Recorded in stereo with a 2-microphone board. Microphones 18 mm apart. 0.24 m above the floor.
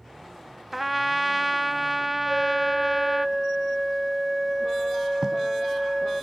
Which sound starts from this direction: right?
Writing, at 5.2 s.